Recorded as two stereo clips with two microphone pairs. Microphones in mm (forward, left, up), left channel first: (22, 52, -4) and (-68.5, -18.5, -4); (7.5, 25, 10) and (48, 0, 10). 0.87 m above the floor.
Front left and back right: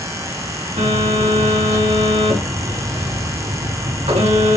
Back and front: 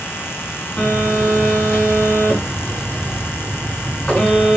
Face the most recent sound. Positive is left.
turn(degrees=-150)